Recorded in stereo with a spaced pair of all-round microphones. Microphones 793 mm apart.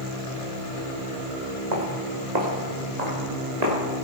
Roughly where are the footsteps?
Right.